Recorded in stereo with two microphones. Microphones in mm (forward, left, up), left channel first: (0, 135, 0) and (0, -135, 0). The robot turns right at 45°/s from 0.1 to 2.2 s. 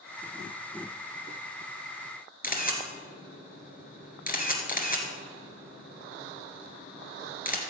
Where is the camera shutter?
35° left (ahead or behind), 1.8 m.